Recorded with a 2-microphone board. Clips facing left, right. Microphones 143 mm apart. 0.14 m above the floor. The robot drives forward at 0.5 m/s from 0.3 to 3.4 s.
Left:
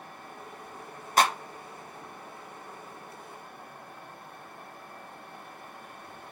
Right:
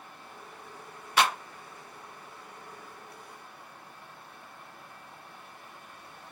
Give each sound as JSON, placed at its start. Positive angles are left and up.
{"t": 1.2, "sound": "a clap", "side_deg": 40, "distance_m": 1.3}